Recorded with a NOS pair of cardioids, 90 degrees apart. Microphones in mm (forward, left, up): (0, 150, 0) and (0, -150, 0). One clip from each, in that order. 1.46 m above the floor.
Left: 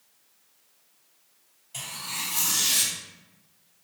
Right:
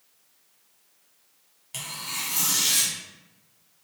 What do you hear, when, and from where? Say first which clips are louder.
1.7 s tearing paper: right 1 dB; 55° right, 1.8 m